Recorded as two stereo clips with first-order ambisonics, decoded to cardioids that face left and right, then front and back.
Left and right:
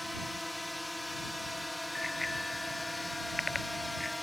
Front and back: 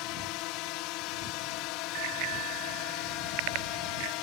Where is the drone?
5° left.